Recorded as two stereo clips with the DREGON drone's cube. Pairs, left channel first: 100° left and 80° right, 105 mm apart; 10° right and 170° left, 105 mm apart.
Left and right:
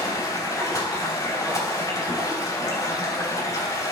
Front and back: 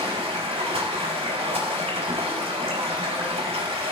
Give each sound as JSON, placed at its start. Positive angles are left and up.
{"t": 0.0, "sound": "running water", "azimuth_deg": 155, "distance_m": 4.5}